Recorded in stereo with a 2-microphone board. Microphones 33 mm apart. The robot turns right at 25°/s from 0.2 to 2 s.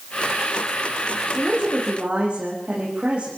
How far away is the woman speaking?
About 6.5 m.